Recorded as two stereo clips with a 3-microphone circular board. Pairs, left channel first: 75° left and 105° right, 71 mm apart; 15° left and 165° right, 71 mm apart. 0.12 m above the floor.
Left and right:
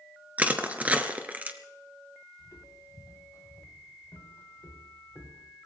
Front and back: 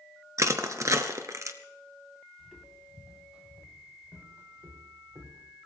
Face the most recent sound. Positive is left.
turn(degrees=155)